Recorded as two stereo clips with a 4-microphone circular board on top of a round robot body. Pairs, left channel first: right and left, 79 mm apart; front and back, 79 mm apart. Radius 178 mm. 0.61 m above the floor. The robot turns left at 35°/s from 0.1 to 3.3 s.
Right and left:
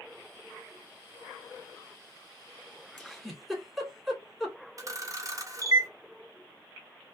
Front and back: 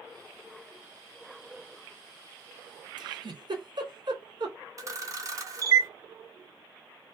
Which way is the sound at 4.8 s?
135° left.